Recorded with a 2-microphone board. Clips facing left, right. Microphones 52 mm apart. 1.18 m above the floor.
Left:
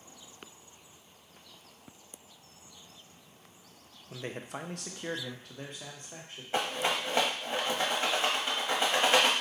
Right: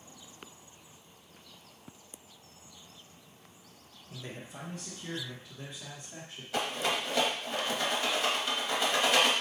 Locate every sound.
4.1 s a man speaking: 45° left (ahead or behind), 0.5 m; by 6.4 s 40° left (ahead or behind), 1.2 m
6.5 s a rattle: 30° left (ahead or behind), 0.9 m